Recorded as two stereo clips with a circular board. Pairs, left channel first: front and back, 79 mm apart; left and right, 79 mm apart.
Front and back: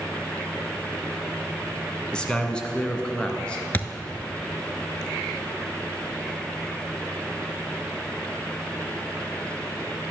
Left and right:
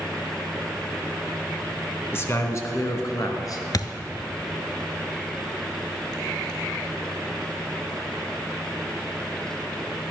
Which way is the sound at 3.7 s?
60° left.